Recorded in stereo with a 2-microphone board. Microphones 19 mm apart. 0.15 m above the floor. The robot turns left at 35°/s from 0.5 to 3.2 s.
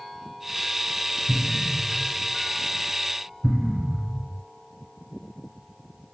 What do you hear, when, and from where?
1.3 s an explosion: 5° right (ahead or behind), 1.0 m; by 4.4 s 45° right (ahead or behind), 1.0 m